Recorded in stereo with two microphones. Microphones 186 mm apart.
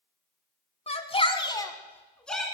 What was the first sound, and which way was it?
A shout, 35° left (ahead or behind).